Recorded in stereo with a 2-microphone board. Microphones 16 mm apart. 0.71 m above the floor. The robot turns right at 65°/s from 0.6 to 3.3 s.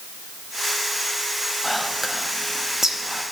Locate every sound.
1.6 s whispering: 5° right (ahead or behind), 0.8 m; by 3.2 s 35° right (ahead or behind), 0.8 m